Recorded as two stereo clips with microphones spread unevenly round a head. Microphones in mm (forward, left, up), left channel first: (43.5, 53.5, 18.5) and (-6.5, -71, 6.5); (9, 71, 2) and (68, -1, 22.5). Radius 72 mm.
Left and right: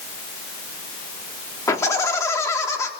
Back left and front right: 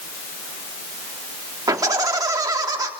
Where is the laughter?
Straight ahead, 3.5 m.